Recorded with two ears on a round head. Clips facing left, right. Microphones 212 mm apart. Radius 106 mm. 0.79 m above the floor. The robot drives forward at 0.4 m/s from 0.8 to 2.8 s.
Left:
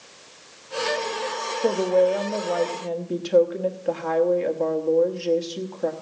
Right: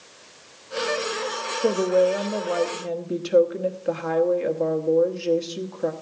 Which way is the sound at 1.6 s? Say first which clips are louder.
Even; 10° right (ahead or behind).